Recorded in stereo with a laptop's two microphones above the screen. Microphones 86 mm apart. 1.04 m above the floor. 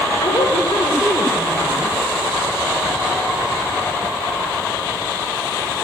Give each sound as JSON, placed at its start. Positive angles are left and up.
{"t": 0.2, "sound": "a woman speaking", "side_deg": 65, "distance_m": 3.0}